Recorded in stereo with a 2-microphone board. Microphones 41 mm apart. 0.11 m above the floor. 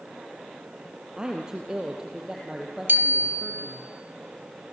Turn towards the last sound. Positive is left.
turn(degrees=-60)  # may be behind; listen again after turning